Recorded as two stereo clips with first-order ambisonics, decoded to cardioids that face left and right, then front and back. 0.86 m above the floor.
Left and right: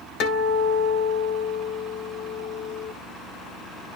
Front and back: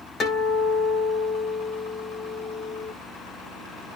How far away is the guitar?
About 2 m.